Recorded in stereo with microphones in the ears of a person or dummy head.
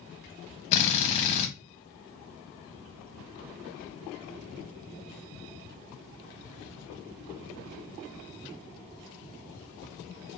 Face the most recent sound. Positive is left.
turn(degrees=35)  # may be behind; listen again after turning